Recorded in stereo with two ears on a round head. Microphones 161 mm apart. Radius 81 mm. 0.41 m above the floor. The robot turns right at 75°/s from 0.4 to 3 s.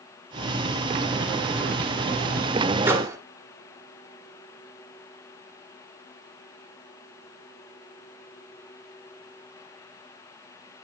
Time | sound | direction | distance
2.9 | a microwave | 10° right (ahead or behind) | 0.9 m